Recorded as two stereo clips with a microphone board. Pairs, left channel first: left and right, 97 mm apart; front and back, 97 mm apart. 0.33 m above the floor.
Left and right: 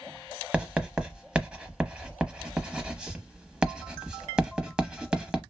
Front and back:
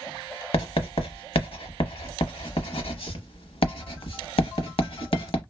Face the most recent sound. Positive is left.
turn(degrees=-10)